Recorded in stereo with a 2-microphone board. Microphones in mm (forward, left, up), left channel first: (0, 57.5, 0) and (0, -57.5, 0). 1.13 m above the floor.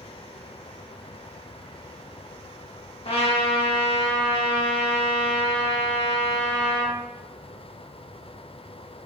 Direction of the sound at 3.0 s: 55° left (ahead or behind).